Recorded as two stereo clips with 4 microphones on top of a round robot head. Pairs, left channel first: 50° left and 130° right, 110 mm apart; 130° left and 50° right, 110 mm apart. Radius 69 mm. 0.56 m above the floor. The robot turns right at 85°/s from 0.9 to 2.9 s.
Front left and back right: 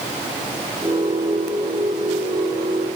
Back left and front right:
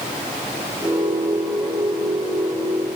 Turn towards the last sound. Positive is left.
No sound to turn to.